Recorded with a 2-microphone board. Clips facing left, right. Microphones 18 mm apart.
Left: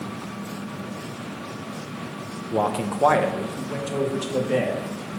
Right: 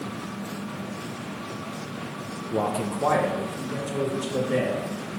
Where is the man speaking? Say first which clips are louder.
Left 3 dB; 20° left (ahead or behind), 0.6 m; by 4.8 s 50° left (ahead or behind), 2 m.